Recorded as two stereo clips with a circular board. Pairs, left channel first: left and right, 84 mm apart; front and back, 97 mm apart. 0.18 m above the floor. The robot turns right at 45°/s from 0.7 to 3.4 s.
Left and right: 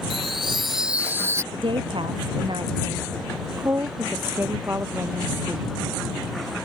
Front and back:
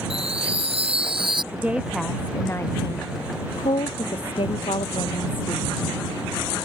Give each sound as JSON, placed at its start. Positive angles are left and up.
{"t": 0.1, "sound": "a chime", "azimuth_deg": -175}
{"t": 1.5, "sound": "a woman speaking", "azimuth_deg": -110}